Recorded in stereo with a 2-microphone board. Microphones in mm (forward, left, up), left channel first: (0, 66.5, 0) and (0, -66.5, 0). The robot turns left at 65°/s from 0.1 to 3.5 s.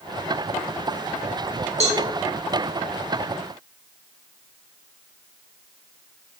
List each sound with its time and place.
1.8 s a cowbell: 55° right (ahead or behind), 0.7 m; by 2.0 s 45° right (ahead or behind), 0.7 m